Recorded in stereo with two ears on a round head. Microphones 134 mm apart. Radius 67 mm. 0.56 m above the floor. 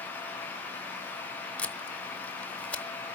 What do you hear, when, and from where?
1.6 s tape being pulled: 10° left (ahead or behind), 0.9 m